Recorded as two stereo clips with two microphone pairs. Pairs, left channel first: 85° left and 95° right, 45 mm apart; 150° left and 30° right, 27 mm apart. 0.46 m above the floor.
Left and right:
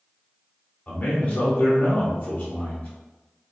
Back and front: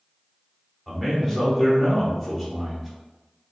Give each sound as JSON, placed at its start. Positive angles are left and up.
{"t": 0.9, "sound": "a man speaking", "azimuth_deg": 55, "distance_m": 1.1}